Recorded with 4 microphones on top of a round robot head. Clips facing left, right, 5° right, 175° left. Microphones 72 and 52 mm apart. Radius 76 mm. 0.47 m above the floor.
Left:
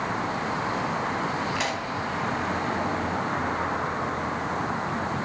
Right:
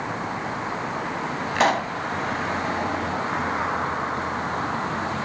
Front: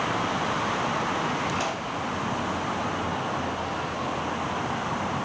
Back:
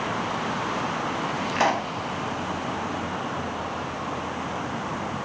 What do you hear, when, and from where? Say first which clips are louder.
1.6 s a pop: right 7 dB, back 6 dB; 135° right, 1.2 m